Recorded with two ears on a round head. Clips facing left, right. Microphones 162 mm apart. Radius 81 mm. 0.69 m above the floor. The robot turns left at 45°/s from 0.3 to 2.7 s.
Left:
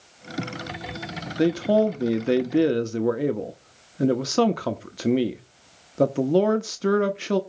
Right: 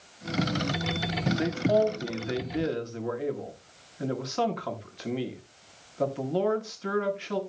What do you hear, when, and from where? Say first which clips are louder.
1.4 s a man speaking: left 5 dB; 135° left, 1.0 m; by 7.4 s 75° left, 1.0 m